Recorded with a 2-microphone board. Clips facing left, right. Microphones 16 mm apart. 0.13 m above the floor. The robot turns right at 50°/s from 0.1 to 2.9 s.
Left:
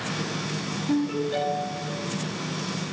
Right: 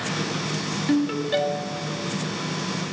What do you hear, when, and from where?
0.9 s a ringtone: 80° right, 1.4 m; by 1.9 s 30° right, 1.4 m